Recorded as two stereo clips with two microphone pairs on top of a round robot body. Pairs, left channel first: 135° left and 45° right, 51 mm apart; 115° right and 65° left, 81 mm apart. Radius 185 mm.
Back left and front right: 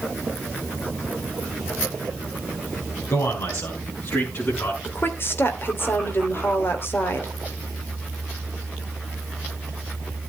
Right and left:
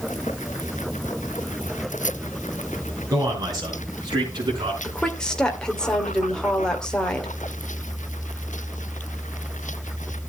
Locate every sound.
3.1 s a man speaking: 110° left, 3.5 m; by 4.7 s 95° left, 5 m
4.8 s a woman speaking: 165° left, 2.5 m